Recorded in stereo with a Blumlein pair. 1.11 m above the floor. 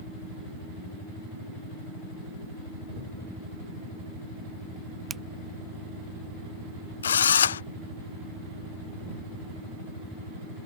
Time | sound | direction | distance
5.1 | a finger snap | 15° right | ?
7.0 | a drill | 65° left | ?